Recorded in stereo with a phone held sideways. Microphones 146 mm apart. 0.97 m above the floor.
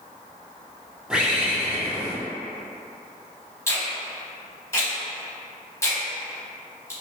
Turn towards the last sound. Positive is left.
turn(degrees=20)  # may be behind; listen again after turning